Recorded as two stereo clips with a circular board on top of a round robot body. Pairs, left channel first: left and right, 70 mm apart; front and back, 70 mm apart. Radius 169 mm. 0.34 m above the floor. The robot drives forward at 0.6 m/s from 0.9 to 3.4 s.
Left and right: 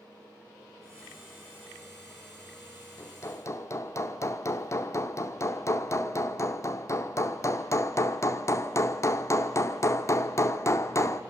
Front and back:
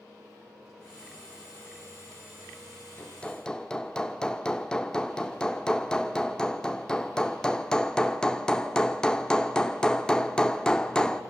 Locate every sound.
3.0 s hammering: 60° left, 1.4 m; by 11.2 s 75° left, 1.3 m